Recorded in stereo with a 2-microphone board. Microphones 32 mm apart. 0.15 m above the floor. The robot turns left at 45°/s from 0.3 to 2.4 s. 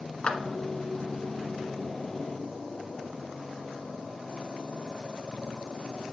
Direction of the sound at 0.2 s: 35° left (ahead or behind).